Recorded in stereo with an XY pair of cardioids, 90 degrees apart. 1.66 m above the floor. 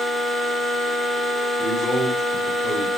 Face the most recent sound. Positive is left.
turn(degrees=20)